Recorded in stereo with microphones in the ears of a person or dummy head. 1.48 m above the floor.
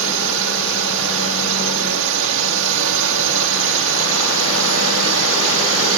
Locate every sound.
0.0 s a drone: 70° right (ahead or behind)